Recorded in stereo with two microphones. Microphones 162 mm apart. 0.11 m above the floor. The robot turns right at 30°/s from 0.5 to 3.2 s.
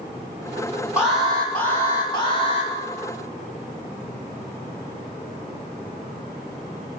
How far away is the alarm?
About 6.5 m.